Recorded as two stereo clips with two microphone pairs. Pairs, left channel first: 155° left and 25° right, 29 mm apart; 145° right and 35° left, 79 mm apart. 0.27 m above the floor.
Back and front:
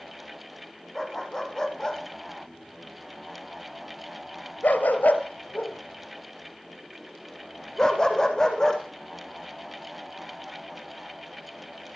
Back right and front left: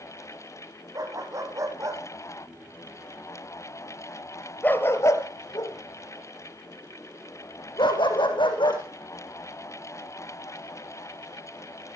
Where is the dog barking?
80° left, 4.5 m; by 8.8 s 140° right, 5 m.